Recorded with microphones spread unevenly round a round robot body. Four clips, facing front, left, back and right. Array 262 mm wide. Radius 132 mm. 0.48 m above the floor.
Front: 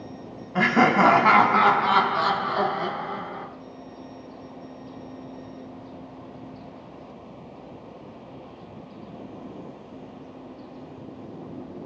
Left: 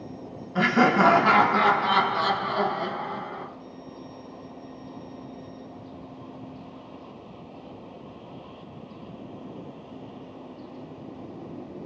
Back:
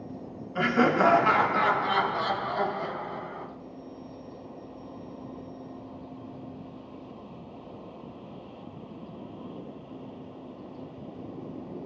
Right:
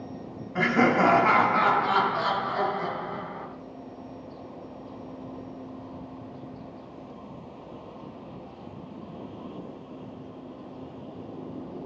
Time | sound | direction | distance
0.6 | laughter | 5° left | 3.5 m